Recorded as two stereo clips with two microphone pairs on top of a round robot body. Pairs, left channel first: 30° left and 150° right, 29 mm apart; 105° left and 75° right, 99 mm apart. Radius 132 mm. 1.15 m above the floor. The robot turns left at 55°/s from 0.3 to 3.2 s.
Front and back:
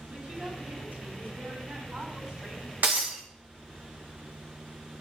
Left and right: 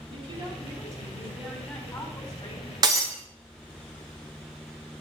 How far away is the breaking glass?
About 0.6 m.